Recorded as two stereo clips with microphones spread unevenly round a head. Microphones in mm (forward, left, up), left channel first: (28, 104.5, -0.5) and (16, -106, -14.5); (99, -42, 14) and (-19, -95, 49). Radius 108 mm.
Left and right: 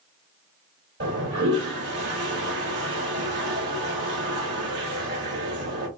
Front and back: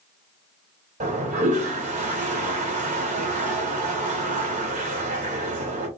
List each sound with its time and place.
1.0 s a toilet flushing: 135° right, 1.4 m